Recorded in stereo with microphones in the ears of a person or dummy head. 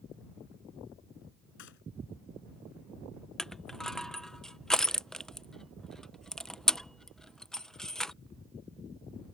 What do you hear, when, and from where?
1.6 s a gunshot: 60° left (ahead or behind)
3.4 s crushing: centre (ahead or behind)